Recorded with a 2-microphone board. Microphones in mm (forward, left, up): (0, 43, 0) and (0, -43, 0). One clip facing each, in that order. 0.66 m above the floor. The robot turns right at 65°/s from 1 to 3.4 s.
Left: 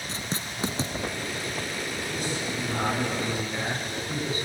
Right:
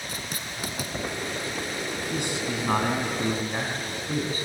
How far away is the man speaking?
About 4.5 m.